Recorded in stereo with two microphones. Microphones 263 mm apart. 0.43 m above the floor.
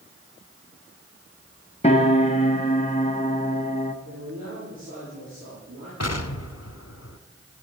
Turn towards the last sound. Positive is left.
turn(degrees=70)  # may be behind; listen again after turning